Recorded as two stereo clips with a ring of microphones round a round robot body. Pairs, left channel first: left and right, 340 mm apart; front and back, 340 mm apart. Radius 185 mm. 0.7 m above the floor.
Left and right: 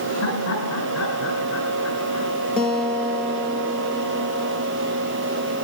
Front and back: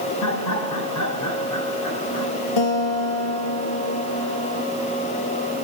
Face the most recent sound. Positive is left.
turn(degrees=0)